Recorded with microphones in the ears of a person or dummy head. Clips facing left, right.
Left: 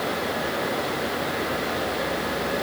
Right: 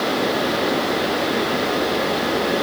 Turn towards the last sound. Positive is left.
No sound to turn to.